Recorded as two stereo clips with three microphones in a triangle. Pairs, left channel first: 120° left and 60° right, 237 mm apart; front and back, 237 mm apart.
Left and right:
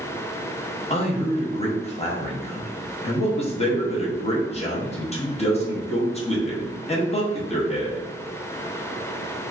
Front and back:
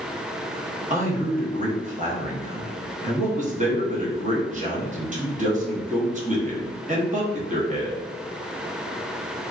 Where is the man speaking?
160° left, 0.8 m.